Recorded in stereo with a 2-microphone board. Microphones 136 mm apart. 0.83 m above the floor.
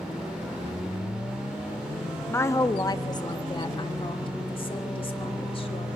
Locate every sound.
2.3 s a woman speaking: 15° left (ahead or behind), 1.0 m; by 5.9 s 45° left (ahead or behind), 3 m